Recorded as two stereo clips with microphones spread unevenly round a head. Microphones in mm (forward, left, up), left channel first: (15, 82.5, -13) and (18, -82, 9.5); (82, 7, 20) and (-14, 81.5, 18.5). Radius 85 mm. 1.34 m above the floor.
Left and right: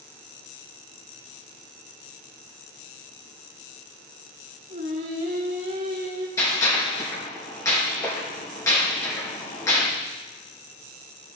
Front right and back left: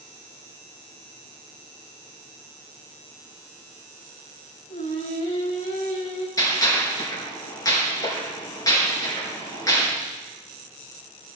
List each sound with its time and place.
4.7 s singing: 55° right, 4.5 m
6.4 s a gunshot: 20° left, 5 m